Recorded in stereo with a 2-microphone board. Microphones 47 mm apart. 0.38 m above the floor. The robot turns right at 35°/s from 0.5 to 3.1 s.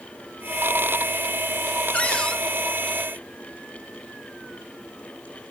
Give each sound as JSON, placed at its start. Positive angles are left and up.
{"t": 1.9, "sound": "a cupboard door", "side_deg": 35, "distance_m": 1.9}